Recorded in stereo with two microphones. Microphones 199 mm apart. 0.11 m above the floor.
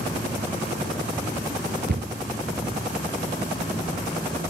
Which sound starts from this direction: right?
A cupboard door, at 1.9 s.